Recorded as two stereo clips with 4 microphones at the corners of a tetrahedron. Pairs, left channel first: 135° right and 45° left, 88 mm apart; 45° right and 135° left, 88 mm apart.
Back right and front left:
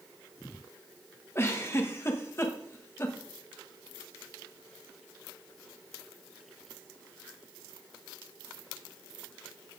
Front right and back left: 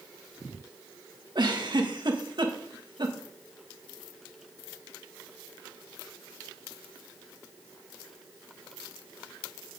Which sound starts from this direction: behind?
A giggle, at 1.4 s.